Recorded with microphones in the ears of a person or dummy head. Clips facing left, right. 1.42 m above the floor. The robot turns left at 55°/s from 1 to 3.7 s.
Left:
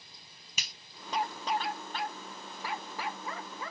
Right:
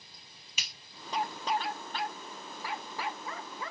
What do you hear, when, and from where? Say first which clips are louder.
0.6 s a finger snap: left 1 dB; 35° left (ahead or behind), 0.6 m